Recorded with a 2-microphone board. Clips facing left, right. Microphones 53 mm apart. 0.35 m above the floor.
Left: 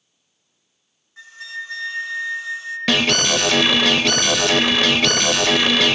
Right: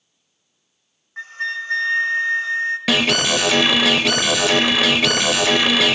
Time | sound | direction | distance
1.2 | a flute | 50° right (ahead or behind) | 1.2 m
2.9 | an alarm | 5° right (ahead or behind) | 0.8 m